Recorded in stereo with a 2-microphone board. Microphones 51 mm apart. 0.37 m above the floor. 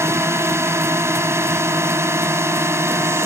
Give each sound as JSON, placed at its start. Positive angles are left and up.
{"t": 0.0, "sound": "a drone", "side_deg": -60}